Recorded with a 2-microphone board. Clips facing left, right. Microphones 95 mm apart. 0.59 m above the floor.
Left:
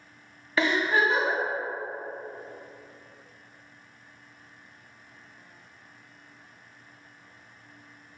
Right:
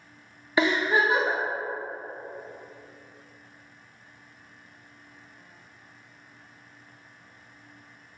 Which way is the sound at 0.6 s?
15° right (ahead or behind).